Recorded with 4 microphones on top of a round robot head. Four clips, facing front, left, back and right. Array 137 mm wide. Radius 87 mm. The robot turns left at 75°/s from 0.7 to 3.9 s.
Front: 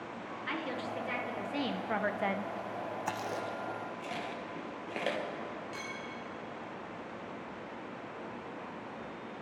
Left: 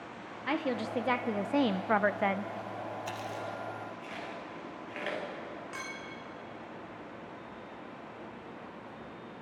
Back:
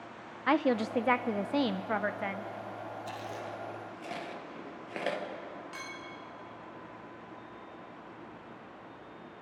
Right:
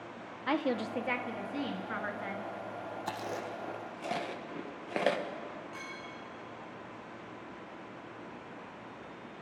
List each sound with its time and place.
0.5 s a woman speaking: 170° right, 0.7 m; by 2.5 s 50° left, 0.7 m
3.1 s chewing: 30° right, 1.8 m; by 5.2 s 90° right, 1.8 m
5.7 s a clink: 115° left, 2.5 m